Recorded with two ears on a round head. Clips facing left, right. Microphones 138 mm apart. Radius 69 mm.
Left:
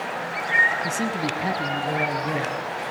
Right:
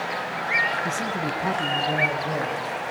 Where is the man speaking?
40° left (ahead or behind), 5.5 m; by 2.6 s 45° left (ahead or behind), 7.5 m.